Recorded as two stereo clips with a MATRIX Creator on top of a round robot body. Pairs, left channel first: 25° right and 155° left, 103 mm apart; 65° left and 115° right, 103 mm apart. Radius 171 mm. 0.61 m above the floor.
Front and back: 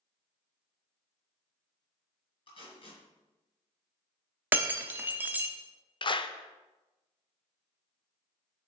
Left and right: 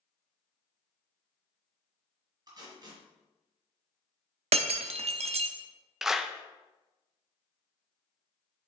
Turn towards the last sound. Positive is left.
turn(degrees=-30)